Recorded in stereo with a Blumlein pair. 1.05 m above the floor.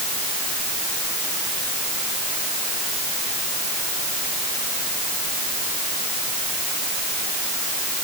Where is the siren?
No siren in this recording.